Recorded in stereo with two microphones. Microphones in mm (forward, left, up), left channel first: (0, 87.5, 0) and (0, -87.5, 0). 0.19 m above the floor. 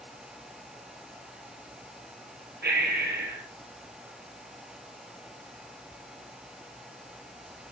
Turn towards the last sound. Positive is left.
turn(degrees=-75)  # may be behind; listen again after turning